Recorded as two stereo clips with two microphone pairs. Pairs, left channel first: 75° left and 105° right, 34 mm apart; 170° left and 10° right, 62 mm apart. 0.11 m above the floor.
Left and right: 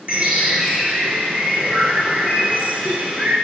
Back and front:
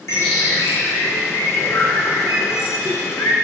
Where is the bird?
155° right, 5 m.